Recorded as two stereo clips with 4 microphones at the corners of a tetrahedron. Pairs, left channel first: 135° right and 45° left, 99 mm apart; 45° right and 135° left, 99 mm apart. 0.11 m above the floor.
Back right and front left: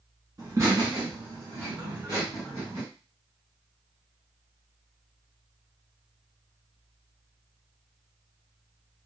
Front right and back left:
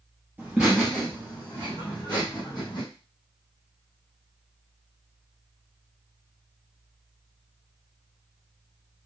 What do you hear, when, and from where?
0.4 s laughter: 75° left, 1.3 m; by 2.8 s 15° right, 2 m